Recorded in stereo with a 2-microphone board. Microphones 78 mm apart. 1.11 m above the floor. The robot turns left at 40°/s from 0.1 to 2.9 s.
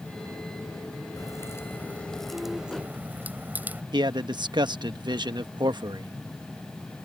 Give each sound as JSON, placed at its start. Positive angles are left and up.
{"t": 1.2, "sound": "a crack", "azimuth_deg": 50}
{"t": 3.9, "sound": "a man speaking", "side_deg": -70}